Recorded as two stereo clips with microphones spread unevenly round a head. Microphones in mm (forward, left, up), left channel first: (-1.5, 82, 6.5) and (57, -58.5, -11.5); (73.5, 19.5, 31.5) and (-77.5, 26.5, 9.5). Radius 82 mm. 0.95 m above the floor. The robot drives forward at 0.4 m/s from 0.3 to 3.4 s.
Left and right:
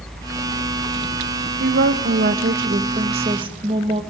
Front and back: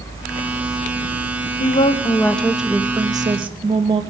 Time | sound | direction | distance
1.6 | a woman speaking | 60° right | 0.7 m